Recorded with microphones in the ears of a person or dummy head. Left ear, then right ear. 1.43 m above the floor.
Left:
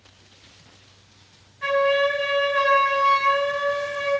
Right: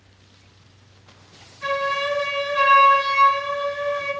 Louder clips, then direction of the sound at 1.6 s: Left 3 dB; 15° left (ahead or behind).